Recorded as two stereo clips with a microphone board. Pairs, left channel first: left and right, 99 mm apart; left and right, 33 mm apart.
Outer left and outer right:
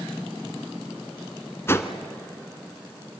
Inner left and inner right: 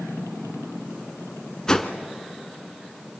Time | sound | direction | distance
1.7 | a whoosh | 25° left (ahead or behind) | 1.2 m